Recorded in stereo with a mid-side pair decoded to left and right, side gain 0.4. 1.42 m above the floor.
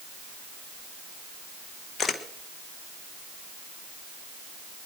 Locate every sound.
2.0 s a camera shutter: 55° left, 1.5 m